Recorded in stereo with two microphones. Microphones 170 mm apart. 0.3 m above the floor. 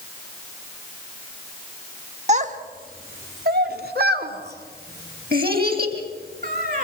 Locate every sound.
2.3 s a child speaking: 45° right (ahead or behind), 1.3 m; by 6.8 s 60° right (ahead or behind), 4.5 m